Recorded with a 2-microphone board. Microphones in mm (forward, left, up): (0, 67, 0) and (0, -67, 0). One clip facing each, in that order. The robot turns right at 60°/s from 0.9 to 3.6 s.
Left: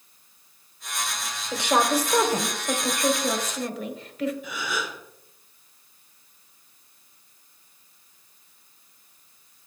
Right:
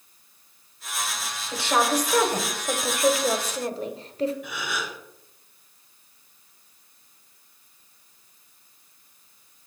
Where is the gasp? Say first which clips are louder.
Left 1 dB; 70° right (ahead or behind), 4 m.